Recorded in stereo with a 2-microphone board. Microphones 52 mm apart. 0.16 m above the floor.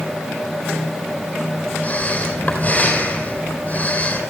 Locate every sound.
1.8 s breathing: 35° left (ahead or behind), 4 m